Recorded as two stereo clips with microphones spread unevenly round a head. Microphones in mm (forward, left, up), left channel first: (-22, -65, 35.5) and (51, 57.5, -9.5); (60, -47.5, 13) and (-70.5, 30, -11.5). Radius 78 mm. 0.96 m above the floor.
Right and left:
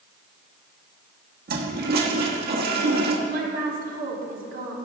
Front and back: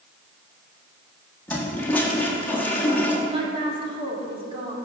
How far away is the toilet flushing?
About 1.3 m.